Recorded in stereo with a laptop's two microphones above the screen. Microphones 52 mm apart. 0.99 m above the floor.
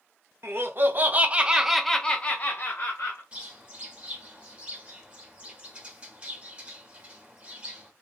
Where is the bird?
20° right (ahead or behind), 1.3 m.